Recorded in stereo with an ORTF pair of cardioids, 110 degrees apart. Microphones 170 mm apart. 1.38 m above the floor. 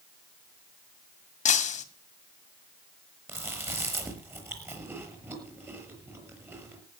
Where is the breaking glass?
45° left, 2.5 m.